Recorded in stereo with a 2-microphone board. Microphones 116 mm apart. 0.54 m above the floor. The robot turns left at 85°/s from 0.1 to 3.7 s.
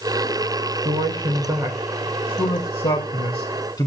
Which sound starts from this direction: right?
A man speaking, at 0.8 s.